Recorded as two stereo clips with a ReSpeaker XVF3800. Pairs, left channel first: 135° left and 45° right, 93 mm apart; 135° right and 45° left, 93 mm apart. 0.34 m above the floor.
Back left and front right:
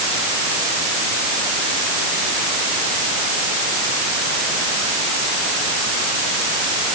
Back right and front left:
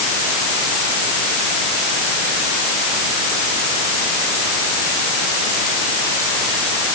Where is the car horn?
I don't hear a car horn.